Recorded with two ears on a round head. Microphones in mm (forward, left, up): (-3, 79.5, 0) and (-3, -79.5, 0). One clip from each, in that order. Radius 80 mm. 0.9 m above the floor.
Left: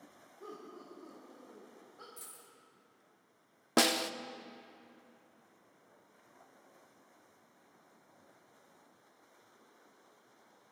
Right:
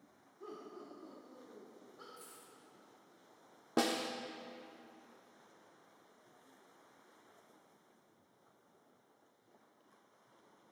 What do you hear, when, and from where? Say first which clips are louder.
0.4 s laughter: left 1 dB; 10° left (ahead or behind), 3 m
2.2 s a dropped coin: left 2 dB; 40° left (ahead or behind), 3 m
3.8 s a snare drum: left 5 dB; 50° left (ahead or behind), 0.6 m